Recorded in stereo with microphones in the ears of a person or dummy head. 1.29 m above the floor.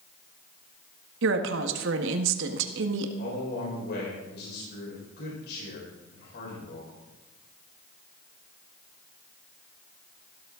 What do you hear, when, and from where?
1.2 s a woman speaking: 85° right, 1.6 m
3.2 s a man speaking: 65° left (ahead or behind), 5.5 m